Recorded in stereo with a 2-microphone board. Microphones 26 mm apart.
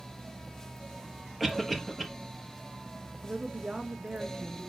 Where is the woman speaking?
45° right (ahead or behind), 1.4 m.